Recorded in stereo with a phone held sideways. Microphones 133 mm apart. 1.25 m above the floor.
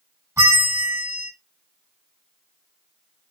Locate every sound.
0.4 s a bell: 25° right (ahead or behind), 2 m